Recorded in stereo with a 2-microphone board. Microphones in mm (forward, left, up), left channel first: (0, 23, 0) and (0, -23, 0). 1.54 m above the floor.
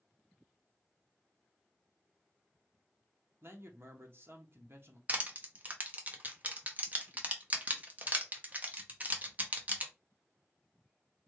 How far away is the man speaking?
About 0.8 m.